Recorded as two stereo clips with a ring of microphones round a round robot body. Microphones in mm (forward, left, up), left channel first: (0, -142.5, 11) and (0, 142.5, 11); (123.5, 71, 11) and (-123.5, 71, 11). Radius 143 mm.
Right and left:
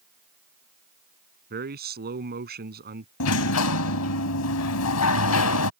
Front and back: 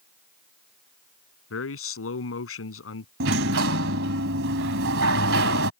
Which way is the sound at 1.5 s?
30° left.